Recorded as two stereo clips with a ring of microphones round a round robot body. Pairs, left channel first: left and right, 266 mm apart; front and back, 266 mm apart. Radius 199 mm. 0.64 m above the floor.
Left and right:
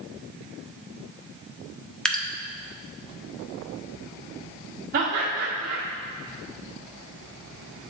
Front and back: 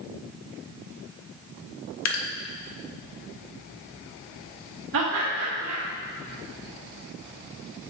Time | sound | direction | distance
2.0 | dripping | straight ahead | 1.1 m
4.9 | laughter | 145° right | 1.6 m